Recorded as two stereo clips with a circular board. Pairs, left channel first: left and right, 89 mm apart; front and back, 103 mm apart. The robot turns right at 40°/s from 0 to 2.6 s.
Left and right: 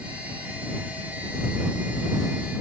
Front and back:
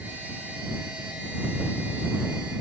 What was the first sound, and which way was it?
Only background noise.